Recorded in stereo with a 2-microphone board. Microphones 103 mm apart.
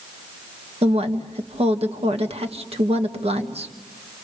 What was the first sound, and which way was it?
A woman speaking, 80° right.